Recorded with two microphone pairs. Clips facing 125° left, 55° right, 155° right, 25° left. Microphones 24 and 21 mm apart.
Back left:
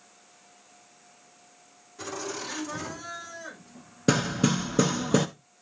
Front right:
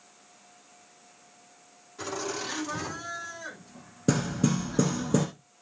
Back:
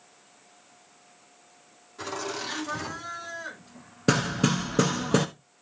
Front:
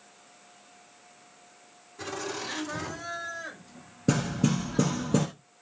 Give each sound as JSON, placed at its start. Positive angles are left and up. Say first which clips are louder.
{"t": 2.0, "sound": "laughter", "louder": "front right 2 dB, back 2 dB", "azimuth_deg": -110, "distance_m": 9.5}
{"t": 4.1, "sound": "hammering", "louder": "back left 2 dB, back 2 dB", "azimuth_deg": 180, "distance_m": 1.2}